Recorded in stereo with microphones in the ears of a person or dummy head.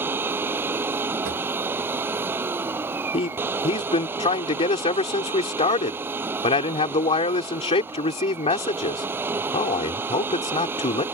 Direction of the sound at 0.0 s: 10° right (ahead or behind).